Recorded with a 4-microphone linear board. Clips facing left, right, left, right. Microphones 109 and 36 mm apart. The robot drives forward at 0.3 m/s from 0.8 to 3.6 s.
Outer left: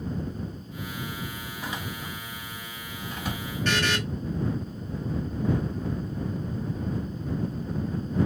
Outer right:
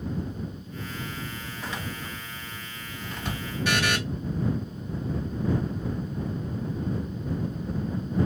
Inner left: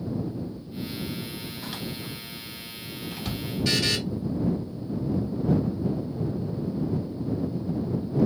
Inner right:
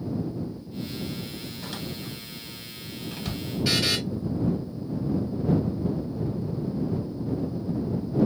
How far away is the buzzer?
About 1.5 m.